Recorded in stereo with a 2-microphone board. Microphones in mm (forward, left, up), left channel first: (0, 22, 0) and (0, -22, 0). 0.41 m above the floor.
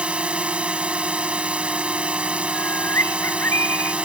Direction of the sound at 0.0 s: 30° right (ahead or behind).